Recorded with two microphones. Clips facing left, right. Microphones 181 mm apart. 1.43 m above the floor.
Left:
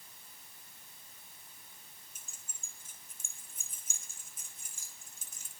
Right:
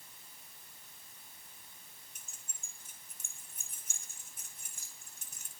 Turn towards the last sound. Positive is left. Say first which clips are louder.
# even
turn(degrees=-70)  # may be behind; listen again after turning